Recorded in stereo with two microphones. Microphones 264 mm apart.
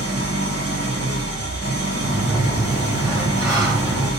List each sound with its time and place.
0.0 s an engine running: 65° right (ahead or behind), 0.8 m
2.0 s a sliding door: 15° right (ahead or behind), 2 m